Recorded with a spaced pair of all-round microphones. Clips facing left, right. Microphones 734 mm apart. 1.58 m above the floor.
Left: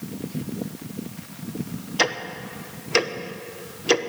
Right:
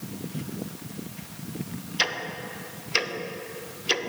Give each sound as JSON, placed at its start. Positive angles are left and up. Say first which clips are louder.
{"t": 2.0, "sound": "ticking", "louder": "left 10 dB", "side_deg": 70, "distance_m": 0.9}